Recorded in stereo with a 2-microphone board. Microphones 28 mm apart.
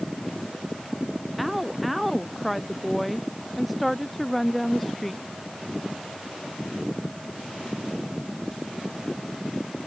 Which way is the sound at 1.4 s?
5° right (ahead or behind).